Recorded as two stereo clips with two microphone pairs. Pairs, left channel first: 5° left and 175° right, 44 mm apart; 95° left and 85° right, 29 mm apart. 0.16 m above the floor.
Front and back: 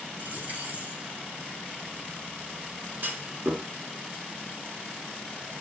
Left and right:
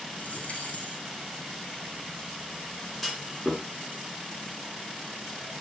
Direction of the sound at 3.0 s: 175° left.